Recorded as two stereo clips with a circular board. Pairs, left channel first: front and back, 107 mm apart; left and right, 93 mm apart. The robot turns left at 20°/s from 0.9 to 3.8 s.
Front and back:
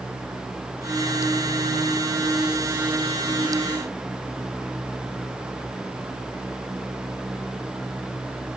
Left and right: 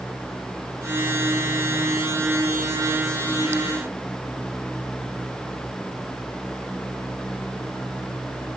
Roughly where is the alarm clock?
No alarm clock in this recording.